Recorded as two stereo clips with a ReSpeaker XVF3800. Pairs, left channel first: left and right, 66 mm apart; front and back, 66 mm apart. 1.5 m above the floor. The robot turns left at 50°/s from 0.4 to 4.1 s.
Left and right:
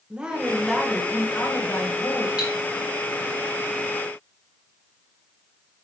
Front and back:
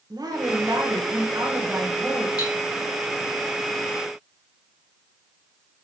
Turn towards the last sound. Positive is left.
turn(degrees=-100)